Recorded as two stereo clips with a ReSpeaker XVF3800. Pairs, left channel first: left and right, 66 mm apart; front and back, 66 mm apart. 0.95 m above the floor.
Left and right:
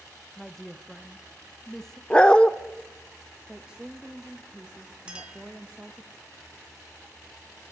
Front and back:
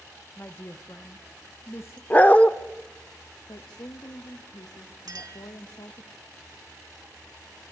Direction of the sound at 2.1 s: 30° left.